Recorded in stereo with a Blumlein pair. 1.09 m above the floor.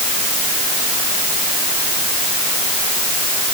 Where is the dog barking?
I don't hear a dog barking.